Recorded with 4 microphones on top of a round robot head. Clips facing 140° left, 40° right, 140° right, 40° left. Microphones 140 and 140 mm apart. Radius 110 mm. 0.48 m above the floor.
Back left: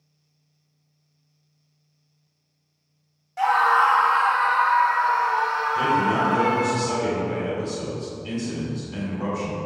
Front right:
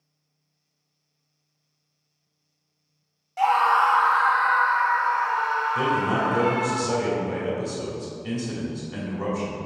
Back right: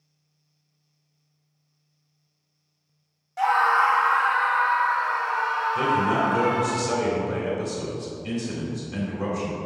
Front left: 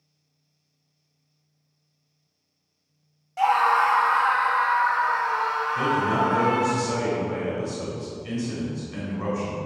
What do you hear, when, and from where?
3.4 s a scream: 10° right, 0.7 m; by 6.8 s 90° left, 1.8 m
5.8 s a man speaking: 80° right, 3 m